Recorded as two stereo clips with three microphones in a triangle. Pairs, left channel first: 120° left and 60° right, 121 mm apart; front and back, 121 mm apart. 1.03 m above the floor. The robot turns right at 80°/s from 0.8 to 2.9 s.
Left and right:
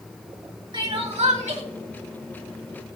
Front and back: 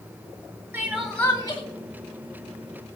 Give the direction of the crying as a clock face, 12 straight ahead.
4 o'clock.